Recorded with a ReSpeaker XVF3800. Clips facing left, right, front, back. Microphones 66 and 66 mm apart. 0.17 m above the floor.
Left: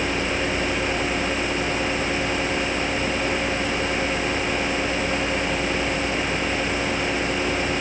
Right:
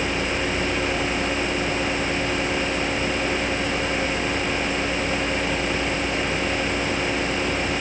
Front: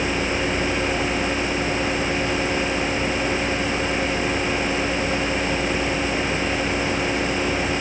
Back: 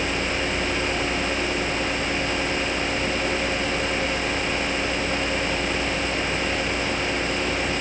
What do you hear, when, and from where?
Only background noise.